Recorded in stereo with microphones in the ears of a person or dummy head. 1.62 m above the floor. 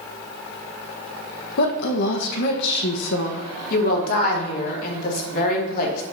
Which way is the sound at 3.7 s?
55° left (ahead or behind).